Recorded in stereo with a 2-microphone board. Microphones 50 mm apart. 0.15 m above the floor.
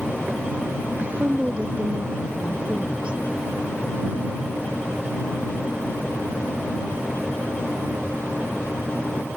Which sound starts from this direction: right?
A woman speaking, at 1.0 s.